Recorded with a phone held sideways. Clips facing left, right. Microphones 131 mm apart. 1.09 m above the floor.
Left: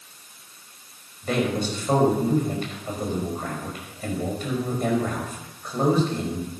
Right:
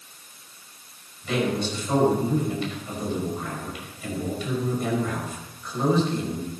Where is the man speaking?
45° left (ahead or behind), 5.5 m.